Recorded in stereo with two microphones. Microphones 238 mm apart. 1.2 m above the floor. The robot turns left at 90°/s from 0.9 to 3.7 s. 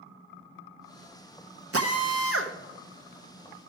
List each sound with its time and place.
1.7 s a drill: 65° right, 0.9 m; by 2.5 s 135° right, 0.9 m